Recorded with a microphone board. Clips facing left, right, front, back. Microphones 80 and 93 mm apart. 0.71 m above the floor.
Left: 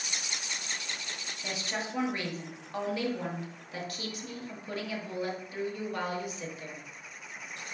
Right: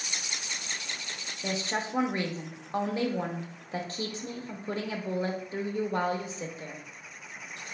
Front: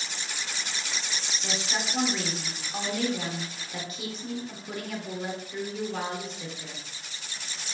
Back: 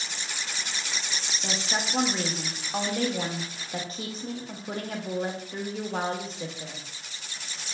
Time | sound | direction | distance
1.4 | a woman speaking | 135° right | 0.8 m